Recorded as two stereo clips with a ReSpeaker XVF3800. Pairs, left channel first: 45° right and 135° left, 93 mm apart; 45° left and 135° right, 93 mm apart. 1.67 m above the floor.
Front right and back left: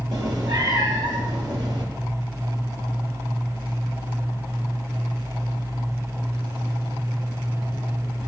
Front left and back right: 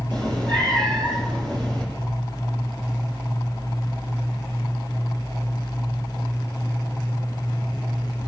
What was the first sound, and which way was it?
A cat meowing, 175° right.